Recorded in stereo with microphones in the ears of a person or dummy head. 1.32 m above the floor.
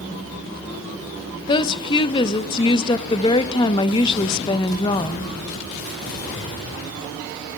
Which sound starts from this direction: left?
A woman speaking, at 1.5 s.